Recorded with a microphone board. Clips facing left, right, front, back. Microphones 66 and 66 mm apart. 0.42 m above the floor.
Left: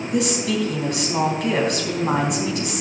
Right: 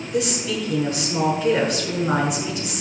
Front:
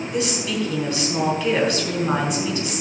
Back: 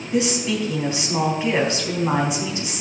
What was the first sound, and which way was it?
A woman speaking, 115° left.